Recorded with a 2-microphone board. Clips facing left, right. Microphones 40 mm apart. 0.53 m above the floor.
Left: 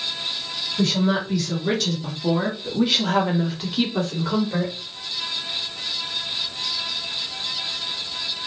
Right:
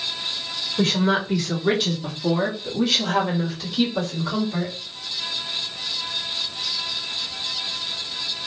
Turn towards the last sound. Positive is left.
turn(degrees=50)  # may be behind; listen again after turning